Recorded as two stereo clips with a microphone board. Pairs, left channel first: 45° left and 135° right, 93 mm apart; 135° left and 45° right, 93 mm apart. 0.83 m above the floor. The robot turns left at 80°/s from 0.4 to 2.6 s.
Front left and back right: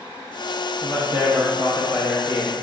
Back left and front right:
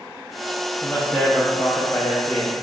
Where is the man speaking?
135° right, 0.8 m; by 2.5 s 85° left, 0.8 m.